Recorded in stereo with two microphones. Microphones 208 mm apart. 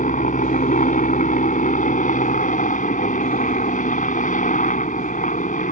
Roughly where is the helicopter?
Left.